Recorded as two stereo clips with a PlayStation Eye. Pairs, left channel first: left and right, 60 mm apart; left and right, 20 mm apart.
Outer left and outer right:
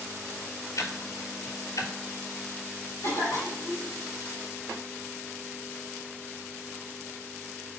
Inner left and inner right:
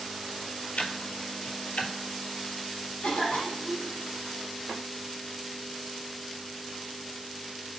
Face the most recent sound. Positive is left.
turn(degrees=65)  # may be behind; listen again after turning